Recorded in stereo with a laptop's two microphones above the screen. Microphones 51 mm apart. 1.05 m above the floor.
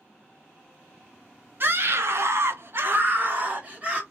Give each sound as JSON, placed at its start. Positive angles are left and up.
{"t": 1.6, "sound": "a scream", "side_deg": -45, "distance_m": 0.8}